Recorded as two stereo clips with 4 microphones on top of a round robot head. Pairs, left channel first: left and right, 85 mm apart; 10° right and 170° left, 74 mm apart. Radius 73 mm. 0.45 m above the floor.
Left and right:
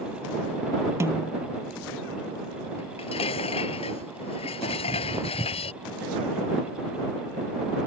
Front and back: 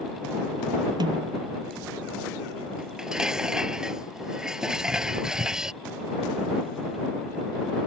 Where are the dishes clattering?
85° left.